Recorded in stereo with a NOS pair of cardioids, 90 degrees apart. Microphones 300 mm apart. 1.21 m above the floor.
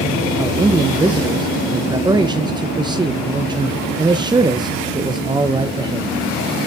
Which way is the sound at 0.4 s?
15° right.